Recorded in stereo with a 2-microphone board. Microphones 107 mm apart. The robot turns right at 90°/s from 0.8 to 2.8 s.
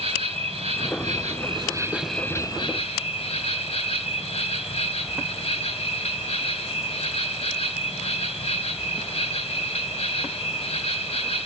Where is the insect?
115° right, 2.5 m; by 11.5 s 65° left, 2.5 m.